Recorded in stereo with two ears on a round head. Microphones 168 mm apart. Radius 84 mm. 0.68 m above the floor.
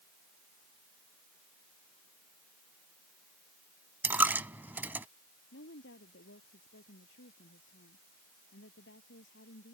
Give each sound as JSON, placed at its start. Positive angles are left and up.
{"t": 4.0, "sound": "a dropped coin", "side_deg": -10}
{"t": 5.5, "sound": "a woman speaking", "side_deg": 65}